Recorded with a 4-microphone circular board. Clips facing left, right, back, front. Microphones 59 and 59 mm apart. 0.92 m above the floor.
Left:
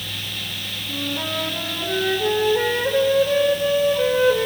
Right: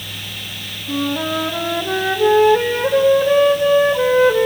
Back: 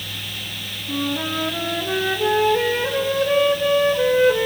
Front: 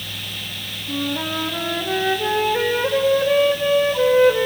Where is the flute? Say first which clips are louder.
Right 7 dB, even; 75° right, 1.8 m.